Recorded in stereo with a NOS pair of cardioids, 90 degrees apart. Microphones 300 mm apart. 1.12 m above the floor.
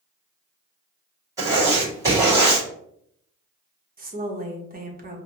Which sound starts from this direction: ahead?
Writing, at 1.4 s.